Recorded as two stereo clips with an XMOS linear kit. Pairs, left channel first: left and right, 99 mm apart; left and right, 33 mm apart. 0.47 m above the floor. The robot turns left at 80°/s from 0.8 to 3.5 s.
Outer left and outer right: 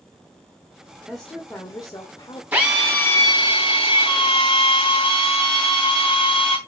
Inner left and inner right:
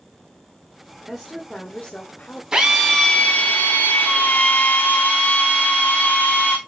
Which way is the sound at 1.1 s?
175° right.